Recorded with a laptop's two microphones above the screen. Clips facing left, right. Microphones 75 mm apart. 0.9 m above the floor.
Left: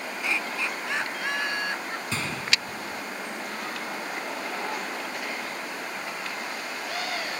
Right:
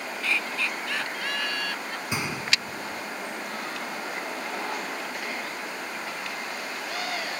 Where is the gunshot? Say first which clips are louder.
Right 1 dB; 15° right (ahead or behind).